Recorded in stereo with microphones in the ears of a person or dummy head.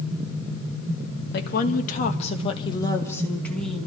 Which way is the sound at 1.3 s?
55° left (ahead or behind).